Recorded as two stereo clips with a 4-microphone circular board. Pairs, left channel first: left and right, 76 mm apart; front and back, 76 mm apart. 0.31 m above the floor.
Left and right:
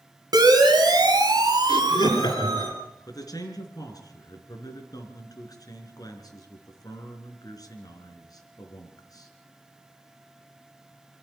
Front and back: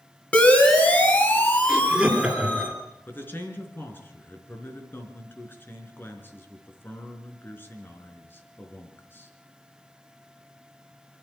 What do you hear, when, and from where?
0.3 s a siren: 70° right, 3 m; by 2.7 s 65° right, 5 m
1.7 s laughter: 100° left, 4.5 m
3.1 s a man speaking: 60° left, 4 m